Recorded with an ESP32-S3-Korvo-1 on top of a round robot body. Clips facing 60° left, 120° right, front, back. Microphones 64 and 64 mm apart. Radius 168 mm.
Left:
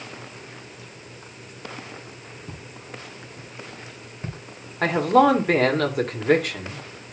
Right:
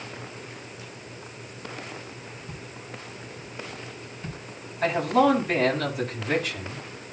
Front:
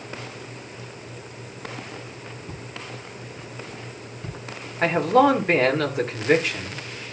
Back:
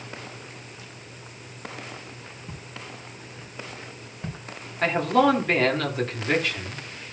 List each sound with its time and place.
2.5 s footsteps: 105° left, 5 m; by 4.4 s 115° left, 4.5 m
4.8 s a man speaking: 70° left, 3 m